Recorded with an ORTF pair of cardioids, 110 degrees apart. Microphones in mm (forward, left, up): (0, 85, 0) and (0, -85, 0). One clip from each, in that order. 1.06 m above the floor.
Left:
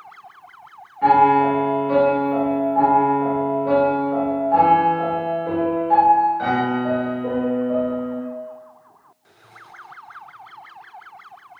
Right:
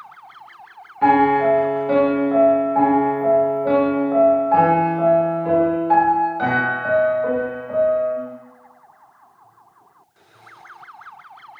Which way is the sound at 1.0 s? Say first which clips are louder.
Left 1 dB; 35° right.